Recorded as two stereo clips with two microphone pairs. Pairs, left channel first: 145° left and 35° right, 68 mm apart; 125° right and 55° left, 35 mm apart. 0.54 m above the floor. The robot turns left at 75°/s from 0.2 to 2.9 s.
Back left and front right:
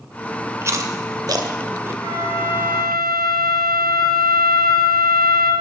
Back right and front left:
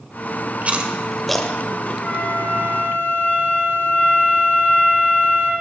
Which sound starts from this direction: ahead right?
A flute, at 2.0 s.